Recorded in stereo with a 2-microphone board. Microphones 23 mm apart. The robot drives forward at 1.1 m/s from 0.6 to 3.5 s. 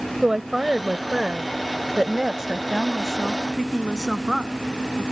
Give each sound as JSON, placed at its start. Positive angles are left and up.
{"t": 0.2, "sound": "a woman speaking", "side_deg": -20}